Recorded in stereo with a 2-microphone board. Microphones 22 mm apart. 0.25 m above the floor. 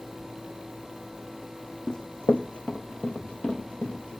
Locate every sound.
1.9 s running footsteps: 35° left (ahead or behind), 0.9 m; by 4.2 s 55° left (ahead or behind), 3 m